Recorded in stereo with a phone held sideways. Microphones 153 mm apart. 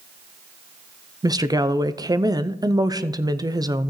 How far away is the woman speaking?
About 0.5 m.